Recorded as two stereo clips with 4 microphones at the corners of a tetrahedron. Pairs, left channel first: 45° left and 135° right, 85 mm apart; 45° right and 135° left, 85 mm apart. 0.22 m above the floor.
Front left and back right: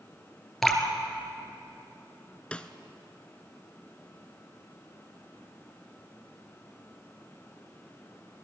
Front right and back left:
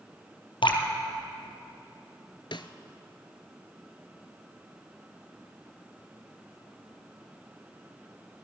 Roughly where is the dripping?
Ahead right.